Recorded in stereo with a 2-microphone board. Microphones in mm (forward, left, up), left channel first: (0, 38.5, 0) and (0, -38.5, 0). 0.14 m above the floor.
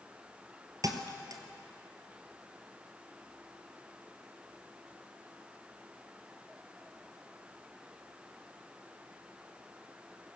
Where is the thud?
50° right (ahead or behind), 1.3 m.